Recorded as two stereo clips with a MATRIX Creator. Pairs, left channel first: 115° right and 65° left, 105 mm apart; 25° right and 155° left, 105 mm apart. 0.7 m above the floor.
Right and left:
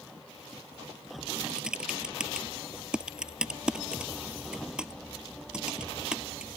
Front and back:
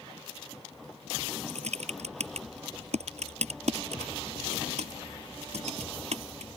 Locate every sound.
1.5 s typing on a keyboard: 150° left